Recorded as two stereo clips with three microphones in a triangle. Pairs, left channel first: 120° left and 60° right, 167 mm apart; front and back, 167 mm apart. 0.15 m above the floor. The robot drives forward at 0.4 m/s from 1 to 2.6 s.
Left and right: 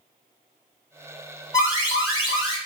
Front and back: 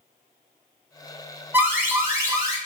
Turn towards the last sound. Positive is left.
turn(degrees=145)